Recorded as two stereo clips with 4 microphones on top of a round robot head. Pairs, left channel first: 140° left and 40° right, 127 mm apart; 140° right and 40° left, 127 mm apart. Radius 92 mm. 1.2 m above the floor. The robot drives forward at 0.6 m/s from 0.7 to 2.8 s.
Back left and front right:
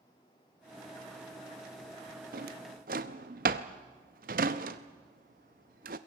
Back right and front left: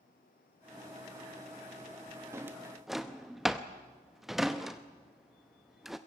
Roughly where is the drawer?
Ahead right.